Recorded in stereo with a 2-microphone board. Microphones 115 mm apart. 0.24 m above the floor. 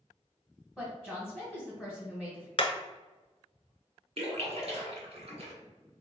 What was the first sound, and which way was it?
A woman speaking, 5° right (ahead or behind).